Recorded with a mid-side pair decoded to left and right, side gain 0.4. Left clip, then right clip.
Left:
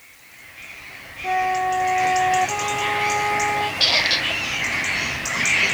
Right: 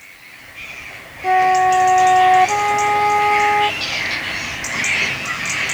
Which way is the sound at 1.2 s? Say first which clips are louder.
Right 8 dB; 50° right.